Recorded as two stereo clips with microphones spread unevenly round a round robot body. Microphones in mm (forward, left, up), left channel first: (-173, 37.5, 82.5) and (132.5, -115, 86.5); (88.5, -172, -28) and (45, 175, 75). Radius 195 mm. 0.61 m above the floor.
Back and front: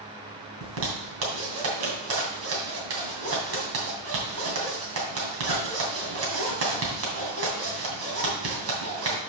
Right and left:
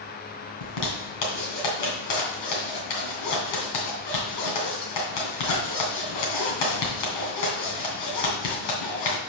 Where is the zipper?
75° right, 2.5 m.